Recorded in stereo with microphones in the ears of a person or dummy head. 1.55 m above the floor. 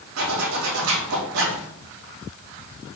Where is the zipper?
75° right (ahead or behind), 4.5 m.